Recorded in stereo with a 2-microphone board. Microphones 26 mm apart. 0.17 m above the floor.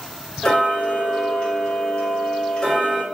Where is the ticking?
25° left (ahead or behind), 1.9 m.